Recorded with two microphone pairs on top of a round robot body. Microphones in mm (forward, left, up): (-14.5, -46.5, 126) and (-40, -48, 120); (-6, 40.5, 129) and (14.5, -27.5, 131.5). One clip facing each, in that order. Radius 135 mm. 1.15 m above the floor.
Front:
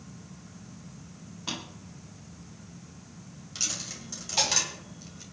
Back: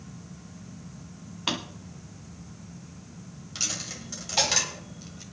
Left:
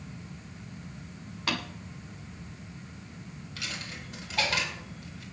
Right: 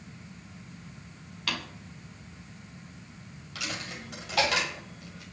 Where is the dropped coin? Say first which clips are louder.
Back 1 dB, right 3 dB; 90° right, 1.5 m.